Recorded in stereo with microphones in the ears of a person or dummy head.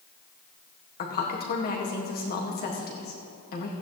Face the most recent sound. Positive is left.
turn(degrees=40)  # may be behind; listen again after turning